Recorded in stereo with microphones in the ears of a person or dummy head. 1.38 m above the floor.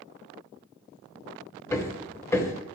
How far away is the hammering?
About 0.9 m.